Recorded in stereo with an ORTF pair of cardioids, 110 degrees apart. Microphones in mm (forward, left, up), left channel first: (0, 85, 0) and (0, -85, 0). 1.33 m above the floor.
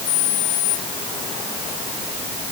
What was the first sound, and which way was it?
Only background noise.